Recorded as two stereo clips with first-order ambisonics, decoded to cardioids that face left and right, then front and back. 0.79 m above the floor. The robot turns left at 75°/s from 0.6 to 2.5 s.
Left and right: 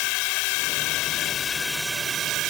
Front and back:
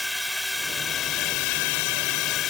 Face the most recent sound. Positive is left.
turn(degrees=-55)